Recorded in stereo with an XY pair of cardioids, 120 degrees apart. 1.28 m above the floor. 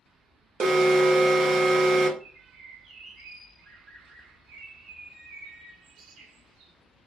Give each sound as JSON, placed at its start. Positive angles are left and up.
{"t": 0.6, "sound": "an alarm", "azimuth_deg": -50, "distance_m": 0.6}
{"t": 2.2, "sound": "a bird", "azimuth_deg": -60, "distance_m": 0.8}